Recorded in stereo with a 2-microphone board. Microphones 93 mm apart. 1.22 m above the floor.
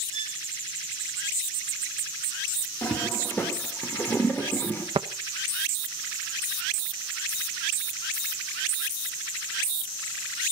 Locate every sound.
0.1 s a violin: 60° left (ahead or behind), 4 m
2.8 s a toilet flushing: 20° left (ahead or behind), 4 m
5.0 s tapping: 80° right, 1.1 m